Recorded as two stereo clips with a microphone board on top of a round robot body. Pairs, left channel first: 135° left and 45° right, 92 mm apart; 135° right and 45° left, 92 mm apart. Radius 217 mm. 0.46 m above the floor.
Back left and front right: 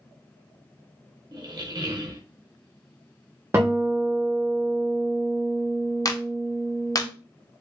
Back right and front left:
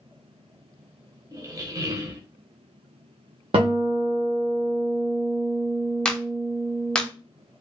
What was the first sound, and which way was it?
A squeak, 5° right.